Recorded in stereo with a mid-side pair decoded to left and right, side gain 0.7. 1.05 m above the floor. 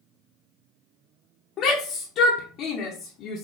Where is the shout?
50° left, 0.7 m.